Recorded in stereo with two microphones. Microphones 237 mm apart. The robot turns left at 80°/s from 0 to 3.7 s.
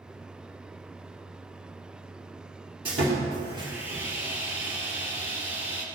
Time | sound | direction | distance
2.9 | sawing | 105° right | 3 m